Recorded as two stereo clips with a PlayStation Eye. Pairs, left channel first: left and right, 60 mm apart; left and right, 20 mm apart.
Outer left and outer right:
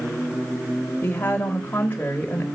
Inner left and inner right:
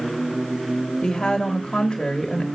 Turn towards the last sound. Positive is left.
turn(degrees=30)  # may be behind; listen again after turning